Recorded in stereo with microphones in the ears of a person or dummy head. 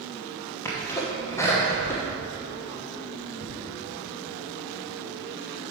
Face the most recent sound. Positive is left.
turn(degrees=10)  # may be behind; listen again after turning